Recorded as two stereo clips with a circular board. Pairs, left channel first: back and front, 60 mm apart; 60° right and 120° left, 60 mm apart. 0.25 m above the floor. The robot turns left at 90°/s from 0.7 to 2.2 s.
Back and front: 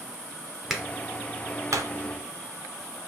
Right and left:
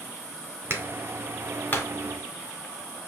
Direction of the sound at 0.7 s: 80° left.